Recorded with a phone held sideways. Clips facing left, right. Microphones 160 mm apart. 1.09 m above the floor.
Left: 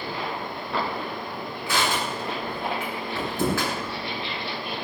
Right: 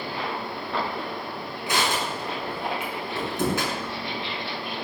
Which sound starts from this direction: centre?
Crushing, at 1.7 s.